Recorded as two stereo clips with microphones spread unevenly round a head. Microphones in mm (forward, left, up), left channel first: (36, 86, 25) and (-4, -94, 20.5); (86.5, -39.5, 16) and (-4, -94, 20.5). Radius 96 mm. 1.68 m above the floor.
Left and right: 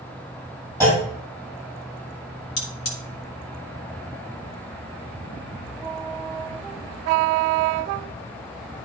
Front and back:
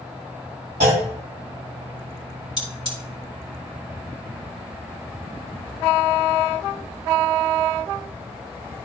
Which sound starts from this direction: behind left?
A clunk, at 0.8 s.